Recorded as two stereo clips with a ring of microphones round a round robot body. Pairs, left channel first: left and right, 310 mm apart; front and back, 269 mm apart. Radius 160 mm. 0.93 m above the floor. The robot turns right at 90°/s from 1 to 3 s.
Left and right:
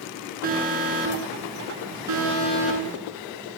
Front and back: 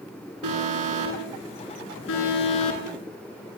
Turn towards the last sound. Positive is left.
turn(degrees=25)